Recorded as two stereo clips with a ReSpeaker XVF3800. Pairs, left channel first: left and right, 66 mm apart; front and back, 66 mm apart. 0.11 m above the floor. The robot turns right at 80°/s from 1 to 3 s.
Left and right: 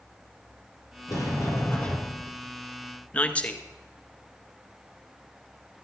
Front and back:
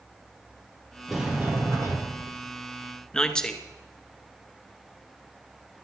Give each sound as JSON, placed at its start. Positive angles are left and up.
{"t": 1.1, "sound": "a sliding door", "azimuth_deg": 90, "distance_m": 3.0}
{"t": 3.1, "sound": "a man speaking", "azimuth_deg": 65, "distance_m": 1.1}